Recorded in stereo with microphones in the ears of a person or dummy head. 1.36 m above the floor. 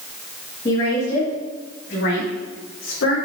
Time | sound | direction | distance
0.7 | a woman speaking | 30° left (ahead or behind) | 2.5 m